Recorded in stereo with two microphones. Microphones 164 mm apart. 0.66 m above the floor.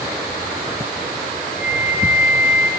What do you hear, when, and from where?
1.6 s a flute: 10° right (ahead or behind), 6 m